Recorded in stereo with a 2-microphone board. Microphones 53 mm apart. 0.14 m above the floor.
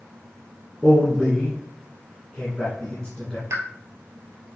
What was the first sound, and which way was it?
A man speaking, 15° left (ahead or behind).